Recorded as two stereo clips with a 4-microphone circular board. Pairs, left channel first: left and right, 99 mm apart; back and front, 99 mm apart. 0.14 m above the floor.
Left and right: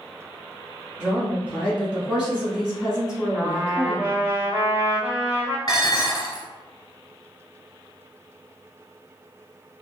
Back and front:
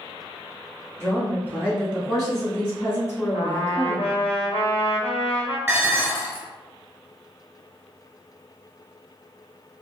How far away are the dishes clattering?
About 1.1 m.